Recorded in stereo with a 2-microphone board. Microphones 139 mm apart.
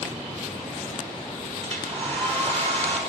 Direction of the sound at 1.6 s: 45° right (ahead or behind).